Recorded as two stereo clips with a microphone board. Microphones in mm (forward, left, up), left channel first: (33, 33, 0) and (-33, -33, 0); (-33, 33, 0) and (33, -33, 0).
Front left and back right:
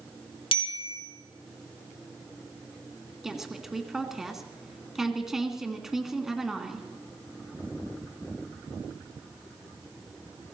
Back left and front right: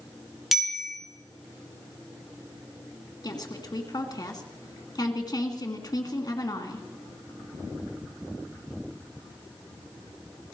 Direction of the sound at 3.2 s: 140° left.